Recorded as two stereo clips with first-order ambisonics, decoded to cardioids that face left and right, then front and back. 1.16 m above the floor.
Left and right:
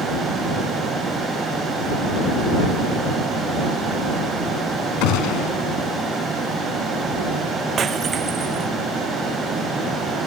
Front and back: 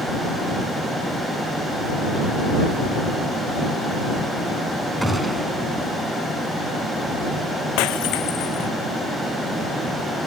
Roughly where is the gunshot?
Left.